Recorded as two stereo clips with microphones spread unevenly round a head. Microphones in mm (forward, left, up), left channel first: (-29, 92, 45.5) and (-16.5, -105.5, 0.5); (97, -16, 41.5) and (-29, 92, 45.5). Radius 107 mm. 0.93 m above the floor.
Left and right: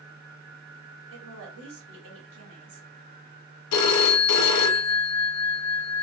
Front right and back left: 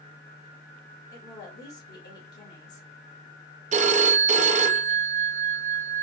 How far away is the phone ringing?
About 0.6 m.